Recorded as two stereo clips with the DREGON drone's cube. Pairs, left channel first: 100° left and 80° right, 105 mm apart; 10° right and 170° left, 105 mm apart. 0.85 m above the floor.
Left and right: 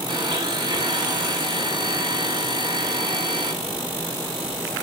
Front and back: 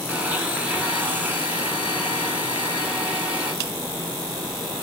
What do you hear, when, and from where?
0.1 s a blender: 115° right, 1.5 m